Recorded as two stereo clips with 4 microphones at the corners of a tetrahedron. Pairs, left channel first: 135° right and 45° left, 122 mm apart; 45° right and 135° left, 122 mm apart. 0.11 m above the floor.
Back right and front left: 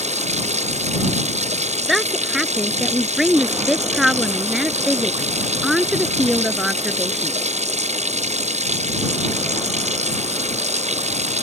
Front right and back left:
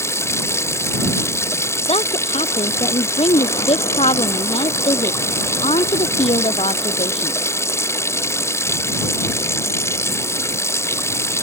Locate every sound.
0.0 s running water: 25° left
1.9 s a woman speaking: 45° right